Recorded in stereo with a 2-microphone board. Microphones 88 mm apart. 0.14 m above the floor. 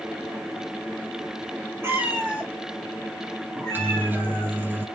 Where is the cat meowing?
25° right (ahead or behind), 1.5 m; by 4.5 s 15° left (ahead or behind), 3 m.